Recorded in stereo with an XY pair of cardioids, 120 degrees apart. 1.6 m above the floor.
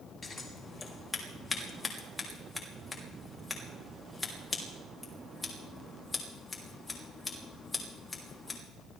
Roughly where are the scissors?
Ahead.